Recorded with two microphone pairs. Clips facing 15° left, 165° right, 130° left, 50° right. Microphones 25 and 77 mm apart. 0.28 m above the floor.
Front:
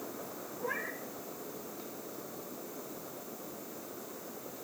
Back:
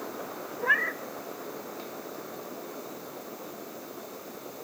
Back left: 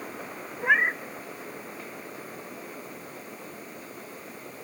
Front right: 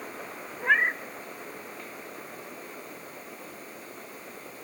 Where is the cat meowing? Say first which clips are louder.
Back 12 dB, back left 1 dB; 150° right, 0.9 m.